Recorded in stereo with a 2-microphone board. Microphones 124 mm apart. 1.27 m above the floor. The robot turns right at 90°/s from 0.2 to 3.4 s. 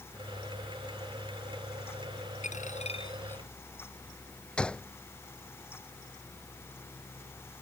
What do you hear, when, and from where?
2.4 s a dropped coin: 80° left; by 3.4 s 170° left
4.6 s a gunshot: 5° left (ahead or behind)